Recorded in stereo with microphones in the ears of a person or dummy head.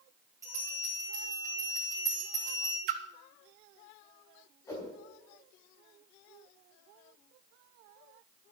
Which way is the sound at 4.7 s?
10° left (ahead or behind).